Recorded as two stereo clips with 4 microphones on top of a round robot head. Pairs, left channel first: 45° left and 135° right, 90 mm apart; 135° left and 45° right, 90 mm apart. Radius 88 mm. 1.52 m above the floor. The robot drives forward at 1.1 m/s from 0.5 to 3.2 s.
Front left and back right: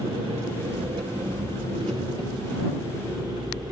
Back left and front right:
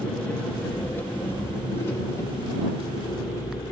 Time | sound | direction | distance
0.0 | an engine running | 150° right | 1.7 m